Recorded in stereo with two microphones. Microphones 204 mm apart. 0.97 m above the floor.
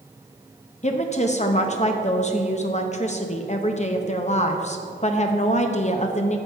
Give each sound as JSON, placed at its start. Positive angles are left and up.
{"t": 0.8, "sound": "a woman speaking", "side_deg": 35, "distance_m": 0.7}